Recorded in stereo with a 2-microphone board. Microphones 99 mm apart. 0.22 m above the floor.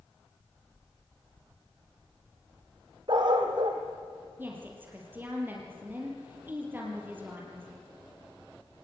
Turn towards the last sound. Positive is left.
turn(degrees=-20)  # may be behind; listen again after turning